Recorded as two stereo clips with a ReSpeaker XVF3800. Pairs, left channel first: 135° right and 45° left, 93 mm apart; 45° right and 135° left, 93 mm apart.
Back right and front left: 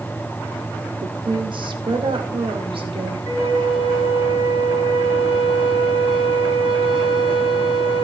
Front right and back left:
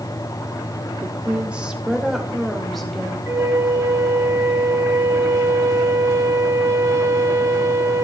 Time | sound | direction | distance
1.0 | a woman speaking | 65° left | 1.6 m
3.3 | a flute | 70° left | 3 m